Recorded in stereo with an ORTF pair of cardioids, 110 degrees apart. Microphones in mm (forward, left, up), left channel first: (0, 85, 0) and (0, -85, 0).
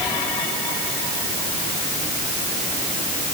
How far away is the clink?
I don't hear a clink.